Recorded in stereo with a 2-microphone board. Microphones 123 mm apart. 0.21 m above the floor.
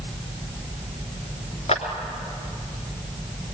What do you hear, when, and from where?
1.7 s a clap: 60° left (ahead or behind), 2.5 m